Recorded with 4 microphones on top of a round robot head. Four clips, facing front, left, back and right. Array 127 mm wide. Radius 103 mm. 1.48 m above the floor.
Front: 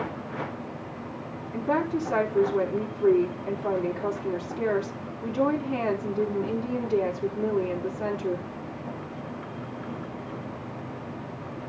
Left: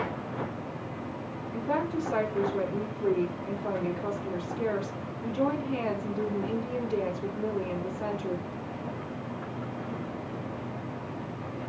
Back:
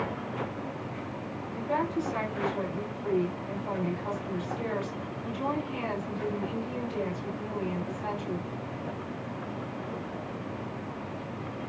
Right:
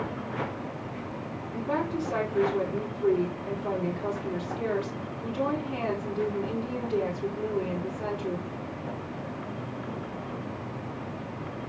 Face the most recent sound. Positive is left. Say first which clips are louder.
# even, front 4 dB
turn(degrees=5)